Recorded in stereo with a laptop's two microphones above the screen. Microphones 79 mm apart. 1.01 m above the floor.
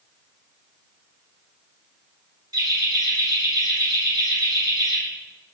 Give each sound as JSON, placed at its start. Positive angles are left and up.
{"t": 2.5, "sound": "laughter", "side_deg": -55, "distance_m": 1.7}